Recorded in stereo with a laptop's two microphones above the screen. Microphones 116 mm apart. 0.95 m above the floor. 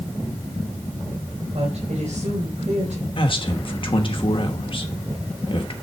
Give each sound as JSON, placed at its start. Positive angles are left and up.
{"t": 1.5, "sound": "a woman speaking", "side_deg": -75, "distance_m": 4.0}
{"t": 3.2, "sound": "a man speaking", "side_deg": 50, "distance_m": 1.1}